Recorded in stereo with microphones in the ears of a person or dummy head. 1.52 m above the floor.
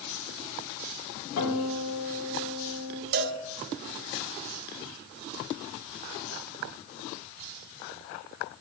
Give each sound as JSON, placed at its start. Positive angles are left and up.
{"t": 1.4, "sound": "a guitar", "side_deg": 80, "distance_m": 3.0}
{"t": 3.1, "sound": "a cowbell", "side_deg": -60, "distance_m": 0.7}